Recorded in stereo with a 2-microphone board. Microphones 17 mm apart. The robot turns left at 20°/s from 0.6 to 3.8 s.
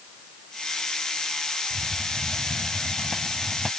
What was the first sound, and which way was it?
A hiss, 155° right.